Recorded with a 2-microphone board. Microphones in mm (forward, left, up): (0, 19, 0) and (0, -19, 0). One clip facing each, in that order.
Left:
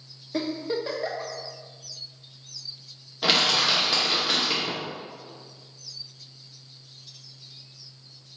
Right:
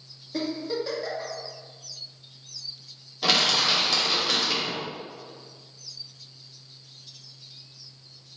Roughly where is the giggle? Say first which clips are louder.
Left 1 dB; left.